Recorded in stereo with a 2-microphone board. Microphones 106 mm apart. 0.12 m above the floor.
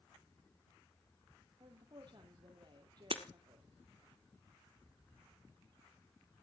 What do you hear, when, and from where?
1.6 s a woman speaking: 45° right (ahead or behind), 3.5 m
3.1 s breaking glass: 60° right (ahead or behind), 1.5 m